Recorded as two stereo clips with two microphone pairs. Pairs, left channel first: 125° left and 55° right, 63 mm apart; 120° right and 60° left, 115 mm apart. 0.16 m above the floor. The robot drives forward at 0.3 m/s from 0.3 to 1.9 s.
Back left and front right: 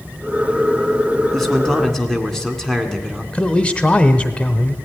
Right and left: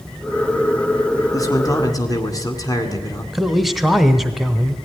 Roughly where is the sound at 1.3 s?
Behind right.